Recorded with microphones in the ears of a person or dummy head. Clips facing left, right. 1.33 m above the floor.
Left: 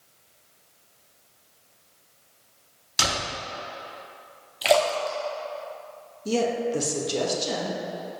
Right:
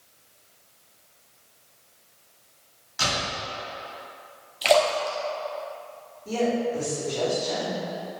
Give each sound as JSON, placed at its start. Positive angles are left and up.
{"t": 3.0, "sound": "a door slam", "side_deg": 70, "distance_m": 3.0}
{"t": 4.6, "sound": "a splash", "side_deg": 10, "distance_m": 1.0}
{"t": 6.2, "sound": "a woman speaking", "side_deg": 65, "distance_m": 1.7}